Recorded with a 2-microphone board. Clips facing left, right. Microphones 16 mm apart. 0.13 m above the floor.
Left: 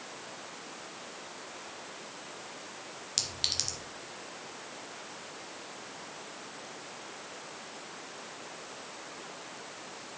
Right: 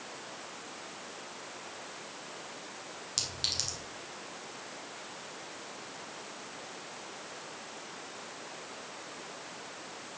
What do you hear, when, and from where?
3.2 s a clink: 10° left (ahead or behind), 1.4 m